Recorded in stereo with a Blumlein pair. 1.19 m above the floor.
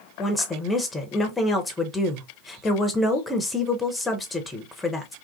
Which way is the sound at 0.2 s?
10° left.